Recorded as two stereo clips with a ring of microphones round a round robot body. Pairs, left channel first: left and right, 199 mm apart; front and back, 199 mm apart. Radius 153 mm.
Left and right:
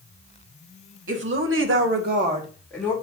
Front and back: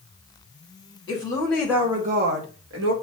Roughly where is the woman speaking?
Right.